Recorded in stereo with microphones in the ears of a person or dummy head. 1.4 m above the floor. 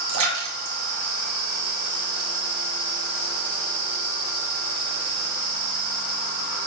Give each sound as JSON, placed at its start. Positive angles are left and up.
{"t": 0.1, "sound": "a splash", "side_deg": -80, "distance_m": 1.9}